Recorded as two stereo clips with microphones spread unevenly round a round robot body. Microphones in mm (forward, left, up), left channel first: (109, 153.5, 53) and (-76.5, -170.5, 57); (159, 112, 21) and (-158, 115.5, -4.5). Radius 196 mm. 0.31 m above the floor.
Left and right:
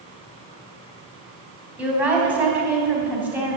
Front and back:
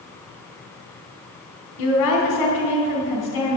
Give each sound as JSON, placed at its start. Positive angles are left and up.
{"t": 1.8, "sound": "a woman speaking", "azimuth_deg": -35, "distance_m": 3.0}